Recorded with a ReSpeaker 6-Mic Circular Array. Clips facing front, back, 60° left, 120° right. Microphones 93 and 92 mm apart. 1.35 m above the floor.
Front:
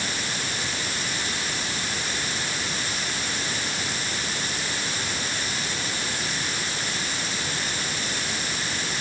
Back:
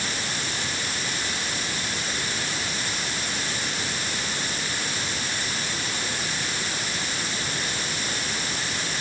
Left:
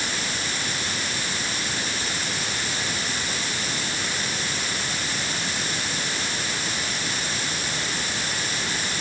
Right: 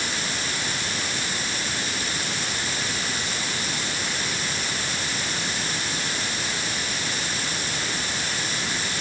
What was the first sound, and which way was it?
Only background noise.